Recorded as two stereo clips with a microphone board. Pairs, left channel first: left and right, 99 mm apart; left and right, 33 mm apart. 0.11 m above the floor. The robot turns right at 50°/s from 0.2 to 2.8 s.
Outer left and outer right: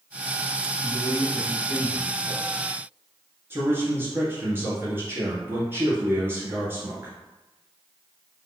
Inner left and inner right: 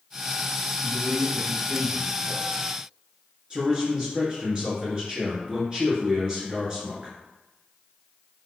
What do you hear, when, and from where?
0.8 s a man speaking: 40° right, 1.5 m; by 2.7 s 55° left, 1.5 m
3.5 s a man speaking: 25° right (ahead or behind), 1.6 m